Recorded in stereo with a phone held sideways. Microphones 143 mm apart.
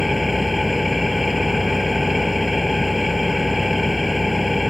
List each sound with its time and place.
0.0 s an engine running: centre (ahead or behind)